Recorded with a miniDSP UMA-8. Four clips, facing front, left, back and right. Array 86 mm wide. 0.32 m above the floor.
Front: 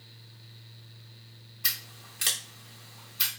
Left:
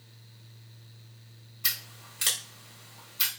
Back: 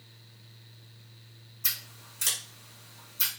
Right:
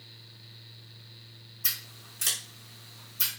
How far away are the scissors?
About 1.8 m.